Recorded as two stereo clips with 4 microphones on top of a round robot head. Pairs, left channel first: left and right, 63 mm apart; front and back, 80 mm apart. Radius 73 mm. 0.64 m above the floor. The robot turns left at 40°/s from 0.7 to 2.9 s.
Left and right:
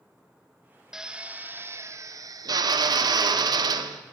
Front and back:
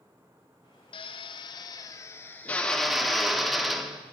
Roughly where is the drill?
Ahead.